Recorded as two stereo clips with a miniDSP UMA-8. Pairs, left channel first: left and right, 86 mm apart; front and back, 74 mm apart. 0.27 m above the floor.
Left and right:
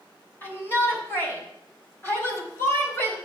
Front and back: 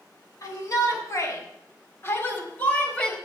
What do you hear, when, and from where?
0.4 s a shout: 30° left, 2.5 m; by 3.1 s 65° left, 1.5 m